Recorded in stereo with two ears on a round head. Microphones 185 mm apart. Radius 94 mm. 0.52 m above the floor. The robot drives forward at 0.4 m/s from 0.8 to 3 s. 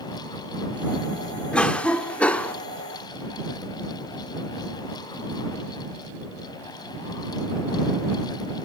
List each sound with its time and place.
1.5 s a cough: 5° left (ahead or behind), 1.0 m